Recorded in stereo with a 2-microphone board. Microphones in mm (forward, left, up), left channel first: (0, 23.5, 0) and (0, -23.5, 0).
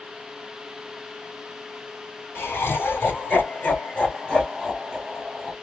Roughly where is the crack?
No crack in this recording.